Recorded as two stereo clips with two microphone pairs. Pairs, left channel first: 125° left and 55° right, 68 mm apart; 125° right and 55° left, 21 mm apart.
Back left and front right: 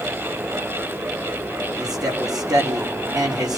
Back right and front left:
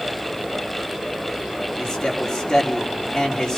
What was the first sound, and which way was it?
A man speaking, 60° right.